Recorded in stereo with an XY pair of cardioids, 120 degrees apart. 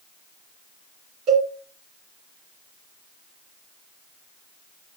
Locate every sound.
1.3 s a cowbell: 65° right, 3 m